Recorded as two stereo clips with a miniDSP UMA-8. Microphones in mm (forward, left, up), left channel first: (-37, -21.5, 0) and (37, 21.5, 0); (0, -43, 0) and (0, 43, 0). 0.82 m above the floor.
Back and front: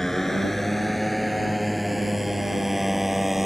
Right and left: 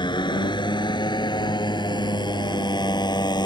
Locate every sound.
0.0 s a motorcycle: 65° right; by 3.5 s 60° right